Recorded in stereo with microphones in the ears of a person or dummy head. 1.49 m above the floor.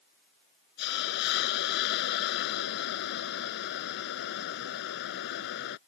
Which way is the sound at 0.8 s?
70° left (ahead or behind).